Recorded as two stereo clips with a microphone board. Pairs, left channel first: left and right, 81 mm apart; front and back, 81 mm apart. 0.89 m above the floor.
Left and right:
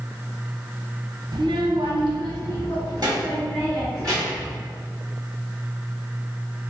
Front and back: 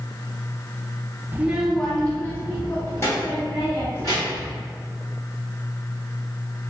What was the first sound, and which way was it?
A child speaking, 115° right.